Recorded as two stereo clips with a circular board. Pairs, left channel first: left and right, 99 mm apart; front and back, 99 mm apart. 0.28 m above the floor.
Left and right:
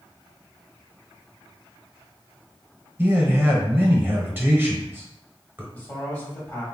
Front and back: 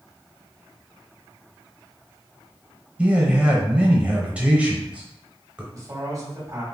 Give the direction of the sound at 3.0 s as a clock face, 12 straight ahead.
4 o'clock.